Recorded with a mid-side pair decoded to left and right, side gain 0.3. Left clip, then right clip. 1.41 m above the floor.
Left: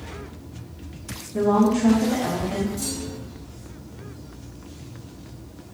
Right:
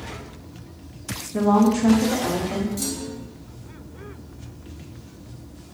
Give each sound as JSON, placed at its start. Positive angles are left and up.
{"t": 1.3, "sound": "a woman speaking", "azimuth_deg": -70, "distance_m": 0.6}
{"t": 2.8, "sound": "a clunk", "azimuth_deg": -65, "distance_m": 0.5}